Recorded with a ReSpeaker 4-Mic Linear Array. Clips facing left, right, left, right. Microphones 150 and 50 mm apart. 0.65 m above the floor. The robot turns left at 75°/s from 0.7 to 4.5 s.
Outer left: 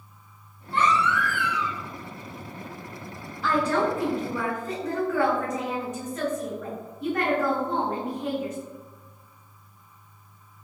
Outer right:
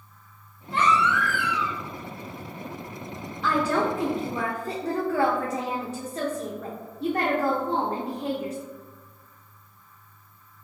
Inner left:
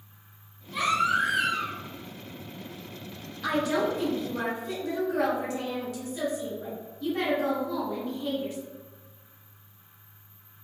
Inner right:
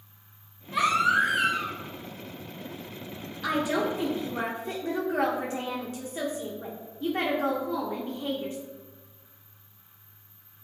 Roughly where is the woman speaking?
Ahead.